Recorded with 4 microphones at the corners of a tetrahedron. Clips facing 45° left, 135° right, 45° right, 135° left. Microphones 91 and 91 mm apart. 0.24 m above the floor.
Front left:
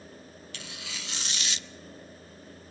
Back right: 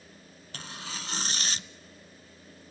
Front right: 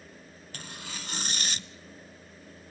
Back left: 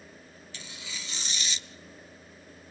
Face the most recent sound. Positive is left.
turn(degrees=-85)